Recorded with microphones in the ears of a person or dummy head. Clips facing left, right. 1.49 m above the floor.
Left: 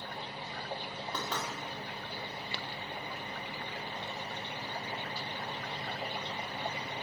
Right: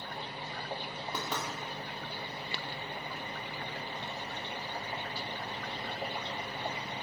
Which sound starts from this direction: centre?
Knocking, at 1.1 s.